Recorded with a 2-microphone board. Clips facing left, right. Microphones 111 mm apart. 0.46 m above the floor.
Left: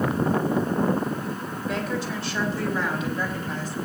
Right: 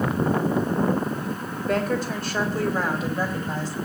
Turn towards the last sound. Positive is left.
turn(degrees=-35)  # may be behind; listen again after turning